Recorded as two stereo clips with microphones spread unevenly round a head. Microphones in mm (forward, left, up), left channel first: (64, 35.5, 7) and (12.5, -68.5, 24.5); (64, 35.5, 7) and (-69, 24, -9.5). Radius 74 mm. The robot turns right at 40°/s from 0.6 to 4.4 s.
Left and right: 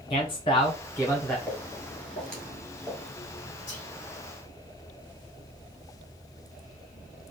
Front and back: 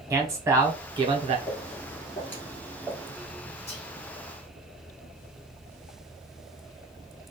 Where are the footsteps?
35° right, 1.7 m; by 3.1 s 55° right, 1.4 m.